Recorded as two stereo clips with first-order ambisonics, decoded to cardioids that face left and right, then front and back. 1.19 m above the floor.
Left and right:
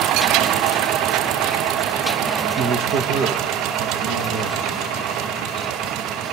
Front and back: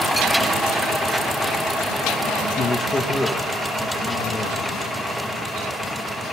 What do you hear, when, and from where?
2.6 s a man speaking: 55° right, 1.3 m; by 4.7 s 95° right, 3 m